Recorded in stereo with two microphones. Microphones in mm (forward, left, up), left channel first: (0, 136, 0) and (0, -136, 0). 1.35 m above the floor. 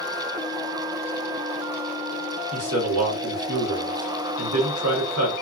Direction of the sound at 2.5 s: 70° right (ahead or behind).